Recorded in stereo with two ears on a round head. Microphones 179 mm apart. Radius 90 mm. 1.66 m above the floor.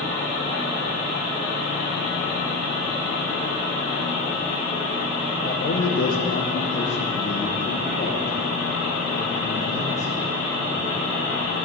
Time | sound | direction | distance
5.4 | a man speaking | 55° left (ahead or behind) | 1.2 m